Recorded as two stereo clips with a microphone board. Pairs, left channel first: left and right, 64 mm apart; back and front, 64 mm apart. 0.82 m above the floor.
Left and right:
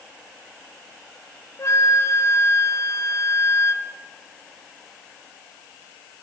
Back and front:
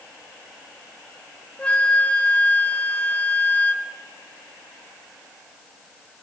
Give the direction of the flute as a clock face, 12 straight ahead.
8 o'clock.